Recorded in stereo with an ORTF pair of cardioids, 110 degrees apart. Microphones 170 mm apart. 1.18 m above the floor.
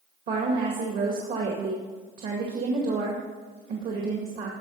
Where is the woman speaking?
65° right, 2 m.